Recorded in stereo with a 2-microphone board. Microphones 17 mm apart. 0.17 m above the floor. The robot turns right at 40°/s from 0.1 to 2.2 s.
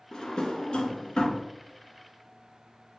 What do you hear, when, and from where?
0.1 s a drawer: 40° left (ahead or behind), 0.5 m; by 1.4 s 60° left (ahead or behind), 0.5 m